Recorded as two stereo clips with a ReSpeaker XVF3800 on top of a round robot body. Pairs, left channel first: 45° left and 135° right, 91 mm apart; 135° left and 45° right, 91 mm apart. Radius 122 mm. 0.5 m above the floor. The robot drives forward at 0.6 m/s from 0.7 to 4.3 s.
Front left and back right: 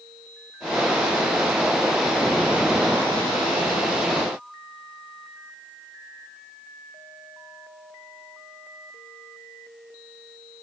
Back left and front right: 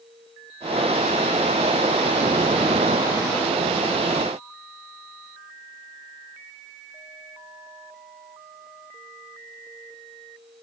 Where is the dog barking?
I don't hear a dog barking.